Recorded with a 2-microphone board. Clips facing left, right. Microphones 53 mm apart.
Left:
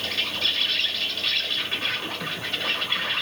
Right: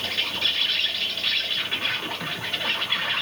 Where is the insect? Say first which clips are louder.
Even; 10° right (ahead or behind), 0.9 m.